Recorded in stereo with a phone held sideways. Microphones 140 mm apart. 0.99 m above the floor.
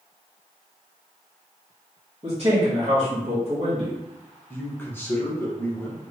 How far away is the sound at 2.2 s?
About 1.0 m.